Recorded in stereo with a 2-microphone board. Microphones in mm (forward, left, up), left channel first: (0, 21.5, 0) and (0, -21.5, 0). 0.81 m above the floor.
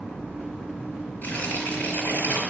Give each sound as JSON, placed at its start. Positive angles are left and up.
{"t": 1.2, "sound": "tearing paper", "side_deg": 45, "distance_m": 4.5}